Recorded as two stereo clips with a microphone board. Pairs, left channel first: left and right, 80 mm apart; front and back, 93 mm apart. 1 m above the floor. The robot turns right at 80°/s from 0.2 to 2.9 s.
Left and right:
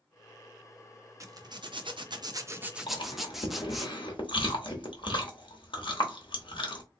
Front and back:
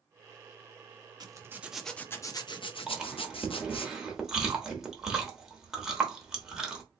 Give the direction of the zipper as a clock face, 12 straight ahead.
5 o'clock.